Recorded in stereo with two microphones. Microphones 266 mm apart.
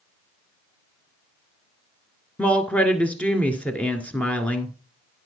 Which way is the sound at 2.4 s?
5° left (ahead or behind).